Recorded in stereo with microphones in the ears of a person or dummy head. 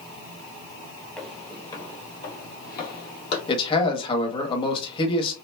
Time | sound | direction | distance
1.2 | footsteps | 5° left (ahead or behind) | 1.5 m
3.5 | a man speaking | 30° left (ahead or behind) | 1.3 m